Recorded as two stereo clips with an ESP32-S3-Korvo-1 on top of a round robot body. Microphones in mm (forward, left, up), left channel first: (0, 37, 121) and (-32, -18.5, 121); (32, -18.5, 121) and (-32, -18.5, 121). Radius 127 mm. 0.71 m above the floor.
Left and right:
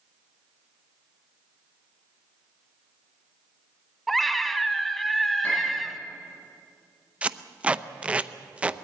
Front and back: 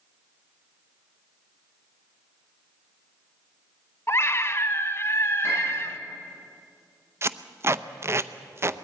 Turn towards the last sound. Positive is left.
turn(degrees=180)